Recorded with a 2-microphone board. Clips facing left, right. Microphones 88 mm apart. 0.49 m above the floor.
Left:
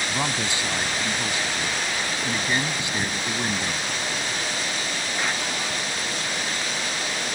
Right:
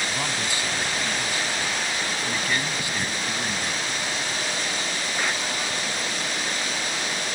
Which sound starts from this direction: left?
A man speaking, at 0.1 s.